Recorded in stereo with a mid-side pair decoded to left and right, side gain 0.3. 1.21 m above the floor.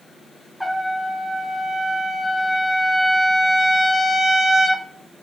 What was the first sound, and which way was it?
A trumpet, 5° right.